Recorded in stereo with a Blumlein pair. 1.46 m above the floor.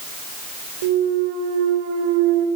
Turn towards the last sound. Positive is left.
turn(degrees=-50)